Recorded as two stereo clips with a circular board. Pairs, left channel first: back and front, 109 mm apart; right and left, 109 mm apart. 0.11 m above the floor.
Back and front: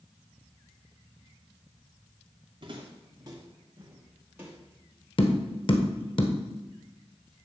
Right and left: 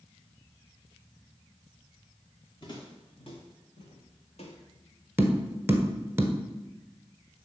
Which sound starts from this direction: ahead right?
Footsteps, at 2.6 s.